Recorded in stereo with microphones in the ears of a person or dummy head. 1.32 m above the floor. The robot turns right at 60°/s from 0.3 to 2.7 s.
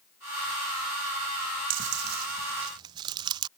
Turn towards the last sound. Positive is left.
turn(degrees=-25)  # may be behind; listen again after turning